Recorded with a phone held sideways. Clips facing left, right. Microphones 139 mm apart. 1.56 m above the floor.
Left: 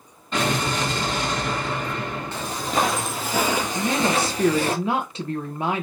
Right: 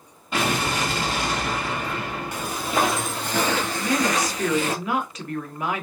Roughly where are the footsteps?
Centre.